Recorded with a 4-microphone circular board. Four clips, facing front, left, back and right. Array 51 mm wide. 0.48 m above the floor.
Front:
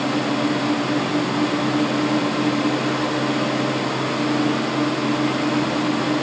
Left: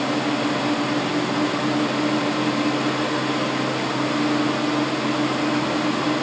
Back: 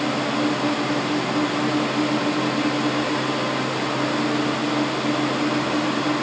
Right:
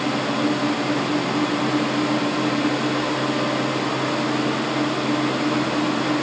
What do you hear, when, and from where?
Only background noise.